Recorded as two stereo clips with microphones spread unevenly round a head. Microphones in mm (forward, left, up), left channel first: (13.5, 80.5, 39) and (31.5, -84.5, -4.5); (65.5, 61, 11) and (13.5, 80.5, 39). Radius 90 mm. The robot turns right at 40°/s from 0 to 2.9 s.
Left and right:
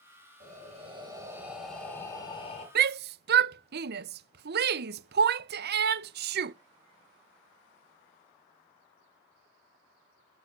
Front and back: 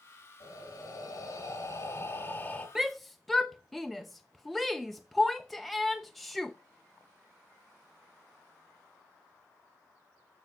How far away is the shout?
About 0.5 m.